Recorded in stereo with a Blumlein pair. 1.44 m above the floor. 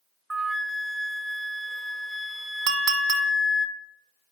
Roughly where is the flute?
Ahead.